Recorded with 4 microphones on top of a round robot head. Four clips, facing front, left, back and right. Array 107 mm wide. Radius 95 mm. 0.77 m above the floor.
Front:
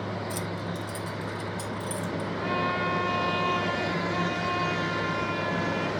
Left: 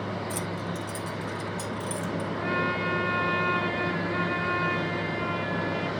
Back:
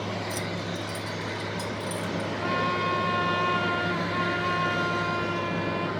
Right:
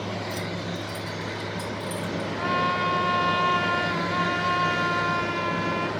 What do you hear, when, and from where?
0.3 s keys jangling: 65° left, 0.8 m; by 2.3 s 55° left, 2.5 m
2.4 s a trumpet: 90° right, 2.5 m